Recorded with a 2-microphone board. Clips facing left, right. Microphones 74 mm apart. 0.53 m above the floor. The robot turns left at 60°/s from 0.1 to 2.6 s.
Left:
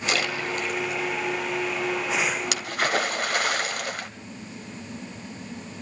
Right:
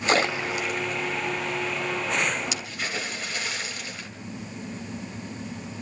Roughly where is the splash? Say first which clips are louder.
Right 4 dB; right.